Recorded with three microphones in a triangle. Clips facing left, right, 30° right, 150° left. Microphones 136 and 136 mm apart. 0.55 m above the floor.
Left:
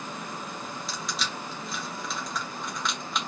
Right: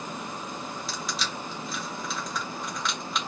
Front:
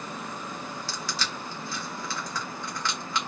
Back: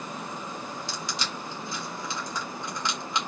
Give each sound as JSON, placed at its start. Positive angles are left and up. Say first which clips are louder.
{"t": 0.9, "sound": "crushing", "louder": "even, even", "azimuth_deg": 180, "distance_m": 0.8}